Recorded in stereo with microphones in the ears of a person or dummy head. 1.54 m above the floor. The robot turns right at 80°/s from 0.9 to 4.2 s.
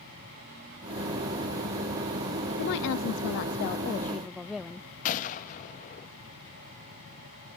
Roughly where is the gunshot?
Left.